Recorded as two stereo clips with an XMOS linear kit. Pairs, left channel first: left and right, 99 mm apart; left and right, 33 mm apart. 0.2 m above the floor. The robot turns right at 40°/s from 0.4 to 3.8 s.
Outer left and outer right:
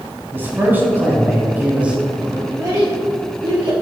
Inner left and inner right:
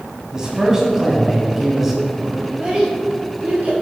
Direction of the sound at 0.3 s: 20° right (ahead or behind).